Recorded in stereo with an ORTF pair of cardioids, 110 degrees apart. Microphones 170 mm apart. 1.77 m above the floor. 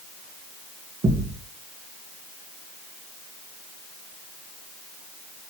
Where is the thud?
25° right, 5 m.